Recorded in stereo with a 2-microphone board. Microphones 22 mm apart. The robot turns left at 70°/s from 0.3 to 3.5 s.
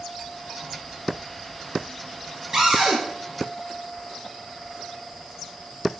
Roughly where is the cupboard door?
Ahead right.